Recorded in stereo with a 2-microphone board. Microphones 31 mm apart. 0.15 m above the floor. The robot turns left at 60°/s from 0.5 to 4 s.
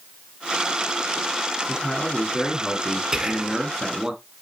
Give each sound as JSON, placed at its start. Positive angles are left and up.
{"t": 1.7, "sound": "a man speaking", "azimuth_deg": 100, "distance_m": 1.3}
{"t": 3.1, "sound": "whispering", "side_deg": -20, "distance_m": 1.2}